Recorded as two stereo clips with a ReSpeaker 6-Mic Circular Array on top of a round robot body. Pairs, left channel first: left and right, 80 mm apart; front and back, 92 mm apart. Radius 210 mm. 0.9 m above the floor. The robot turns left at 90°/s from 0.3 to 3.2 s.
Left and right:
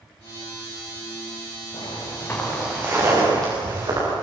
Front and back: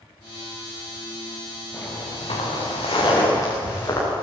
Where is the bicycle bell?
I don't hear a bicycle bell.